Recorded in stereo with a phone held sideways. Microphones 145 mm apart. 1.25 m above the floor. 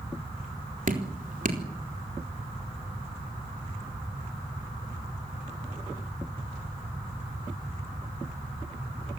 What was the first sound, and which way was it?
Dripping, 60° right (ahead or behind).